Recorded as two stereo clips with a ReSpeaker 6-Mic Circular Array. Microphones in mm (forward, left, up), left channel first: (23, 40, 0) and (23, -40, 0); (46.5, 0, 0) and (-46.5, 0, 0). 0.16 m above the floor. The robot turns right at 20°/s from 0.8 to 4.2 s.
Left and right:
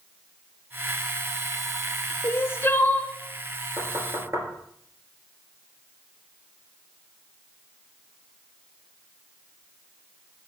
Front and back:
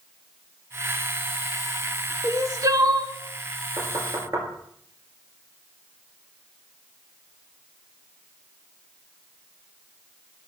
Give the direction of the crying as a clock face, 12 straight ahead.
7 o'clock.